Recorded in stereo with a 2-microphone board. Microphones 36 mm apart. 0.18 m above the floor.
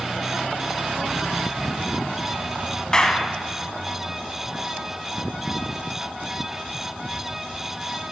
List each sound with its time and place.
2.9 s a clap: 20° left (ahead or behind), 0.8 m